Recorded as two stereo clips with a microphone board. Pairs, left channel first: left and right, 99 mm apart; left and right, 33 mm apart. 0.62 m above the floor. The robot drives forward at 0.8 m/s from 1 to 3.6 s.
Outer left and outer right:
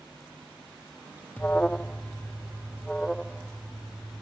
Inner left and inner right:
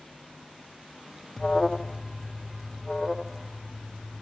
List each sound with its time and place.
1.4 s an alarm: 15° left (ahead or behind); by 4.2 s 5° left (ahead or behind)